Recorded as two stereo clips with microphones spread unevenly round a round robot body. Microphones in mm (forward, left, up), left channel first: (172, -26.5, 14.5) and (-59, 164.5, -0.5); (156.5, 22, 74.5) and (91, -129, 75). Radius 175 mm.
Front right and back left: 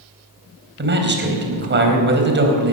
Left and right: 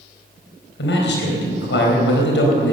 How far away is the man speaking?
About 4 m.